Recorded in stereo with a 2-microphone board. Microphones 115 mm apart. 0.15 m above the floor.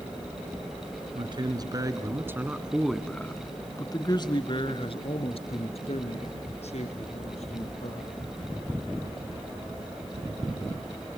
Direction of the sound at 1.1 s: 45° right (ahead or behind).